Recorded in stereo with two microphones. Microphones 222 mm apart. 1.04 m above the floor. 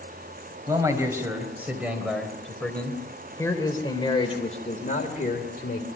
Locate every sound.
0.7 s a man speaking: 15° right (ahead or behind), 4.5 m; by 5.9 s 50° left (ahead or behind), 3 m